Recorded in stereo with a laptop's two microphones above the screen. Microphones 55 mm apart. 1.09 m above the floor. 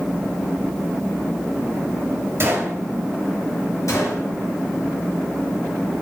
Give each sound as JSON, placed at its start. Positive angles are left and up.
{"t": 2.4, "sound": "a gunshot", "side_deg": -55, "distance_m": 1.7}
{"t": 3.9, "sound": "a gunshot", "side_deg": 70, "distance_m": 2.0}